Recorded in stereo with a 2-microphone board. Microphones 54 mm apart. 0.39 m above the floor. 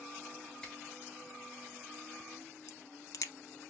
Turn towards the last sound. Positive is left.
turn(degrees=75)  # may be behind; listen again after turning